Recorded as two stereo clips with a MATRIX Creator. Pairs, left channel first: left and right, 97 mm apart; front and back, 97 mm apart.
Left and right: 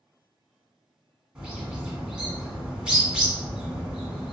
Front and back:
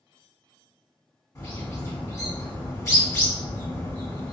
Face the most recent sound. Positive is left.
turn(degrees=-20)